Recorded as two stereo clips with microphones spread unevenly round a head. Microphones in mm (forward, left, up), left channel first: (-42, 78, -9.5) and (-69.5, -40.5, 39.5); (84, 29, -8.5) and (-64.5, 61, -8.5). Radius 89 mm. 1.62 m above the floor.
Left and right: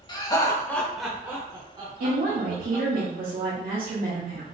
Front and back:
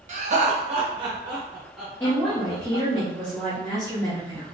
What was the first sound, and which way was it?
Laughter, 145° left.